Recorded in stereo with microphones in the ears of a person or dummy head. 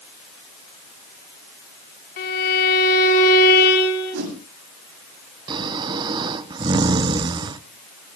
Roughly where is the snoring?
Right.